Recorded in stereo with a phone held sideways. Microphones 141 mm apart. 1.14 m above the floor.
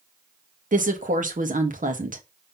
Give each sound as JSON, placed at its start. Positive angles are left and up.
{"t": 0.7, "sound": "a woman speaking", "side_deg": -70, "distance_m": 1.6}